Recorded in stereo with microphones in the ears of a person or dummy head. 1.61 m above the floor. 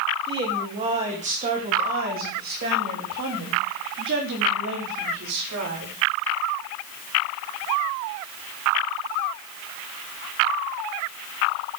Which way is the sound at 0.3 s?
20° right (ahead or behind).